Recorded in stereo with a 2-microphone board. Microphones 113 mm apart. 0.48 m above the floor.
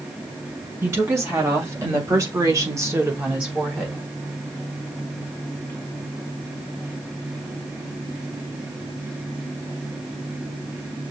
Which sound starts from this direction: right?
A woman speaking, at 0.8 s.